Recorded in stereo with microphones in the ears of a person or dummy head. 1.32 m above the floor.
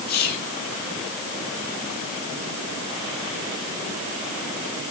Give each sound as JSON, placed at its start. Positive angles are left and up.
{"t": 0.1, "sound": "whispering", "side_deg": 50, "distance_m": 2.5}